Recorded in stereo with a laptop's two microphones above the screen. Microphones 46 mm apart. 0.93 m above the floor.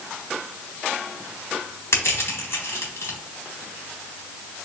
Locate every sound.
1.9 s crushing: 70° left (ahead or behind), 1.3 m